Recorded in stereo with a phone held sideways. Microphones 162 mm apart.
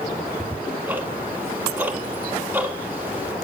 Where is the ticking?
10° right (ahead or behind), 1.9 m.